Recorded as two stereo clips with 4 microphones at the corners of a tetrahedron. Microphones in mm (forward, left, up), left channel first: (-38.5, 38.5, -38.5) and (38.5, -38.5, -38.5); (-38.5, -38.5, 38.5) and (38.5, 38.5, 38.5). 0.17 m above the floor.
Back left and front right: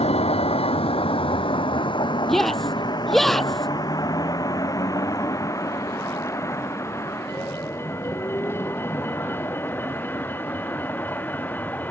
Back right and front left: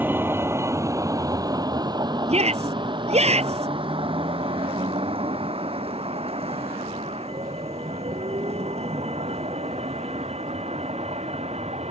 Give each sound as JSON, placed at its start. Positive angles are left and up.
{"t": 0.0, "sound": "a vehicle", "azimuth_deg": 115}
{"t": 2.3, "sound": "a shout", "azimuth_deg": 50}